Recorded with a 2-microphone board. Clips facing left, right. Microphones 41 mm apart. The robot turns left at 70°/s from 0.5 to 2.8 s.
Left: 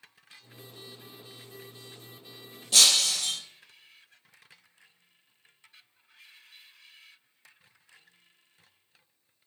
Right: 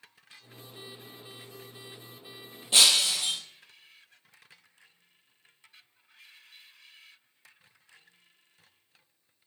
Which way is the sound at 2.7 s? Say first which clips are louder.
Right 1 dB; 25° right (ahead or behind).